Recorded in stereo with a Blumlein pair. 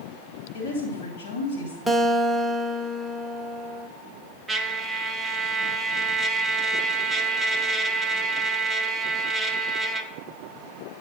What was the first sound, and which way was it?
A woman speaking, 65° left.